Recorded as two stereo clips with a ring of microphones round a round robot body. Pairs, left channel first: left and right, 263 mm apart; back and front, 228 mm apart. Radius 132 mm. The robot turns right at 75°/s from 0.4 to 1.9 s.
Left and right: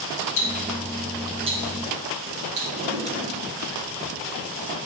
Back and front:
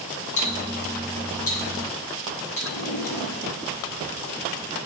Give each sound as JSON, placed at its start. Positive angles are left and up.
{"t": 0.4, "sound": "ticking", "azimuth_deg": 120, "distance_m": 2.0}
{"t": 2.7, "sound": "a drawer", "azimuth_deg": -155, "distance_m": 1.8}